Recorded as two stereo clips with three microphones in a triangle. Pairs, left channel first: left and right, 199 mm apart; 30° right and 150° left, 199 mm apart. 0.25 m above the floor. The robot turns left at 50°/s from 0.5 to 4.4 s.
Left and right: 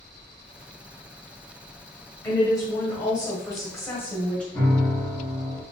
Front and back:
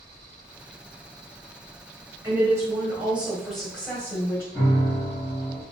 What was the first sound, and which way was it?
A woman speaking, 125° left.